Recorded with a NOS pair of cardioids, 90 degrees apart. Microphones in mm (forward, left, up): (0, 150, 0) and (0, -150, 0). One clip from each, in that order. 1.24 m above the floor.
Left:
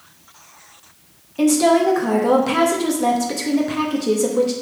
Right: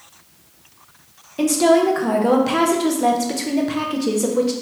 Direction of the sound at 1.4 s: 5° right.